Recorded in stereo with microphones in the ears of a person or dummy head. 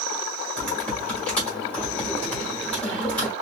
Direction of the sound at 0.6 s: 5° left (ahead or behind).